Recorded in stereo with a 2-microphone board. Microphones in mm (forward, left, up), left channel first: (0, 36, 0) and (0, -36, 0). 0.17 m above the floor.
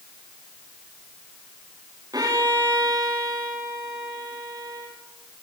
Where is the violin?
60° right (ahead or behind), 8 m.